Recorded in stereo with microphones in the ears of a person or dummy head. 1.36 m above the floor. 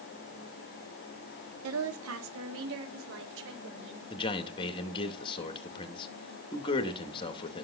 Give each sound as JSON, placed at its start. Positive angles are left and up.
{"t": 1.6, "sound": "a woman speaking", "side_deg": -85, "distance_m": 3.0}
{"t": 4.1, "sound": "a man speaking", "side_deg": 30, "distance_m": 2.5}